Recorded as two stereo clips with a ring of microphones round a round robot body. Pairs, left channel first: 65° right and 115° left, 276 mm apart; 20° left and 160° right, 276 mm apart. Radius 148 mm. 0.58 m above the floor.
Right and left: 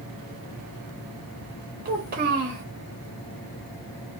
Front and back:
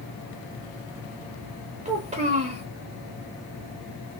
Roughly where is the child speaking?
Behind left.